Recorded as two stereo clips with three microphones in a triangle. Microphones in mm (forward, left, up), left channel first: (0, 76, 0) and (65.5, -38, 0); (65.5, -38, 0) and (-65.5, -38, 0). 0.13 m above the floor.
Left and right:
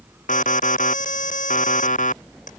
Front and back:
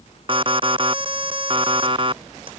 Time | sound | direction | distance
0.3 | an alarm | 130° left | ?